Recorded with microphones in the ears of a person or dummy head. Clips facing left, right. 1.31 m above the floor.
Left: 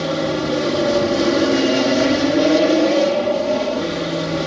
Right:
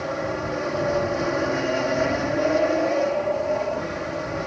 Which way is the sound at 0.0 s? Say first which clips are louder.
Left 7 dB; 50° left (ahead or behind).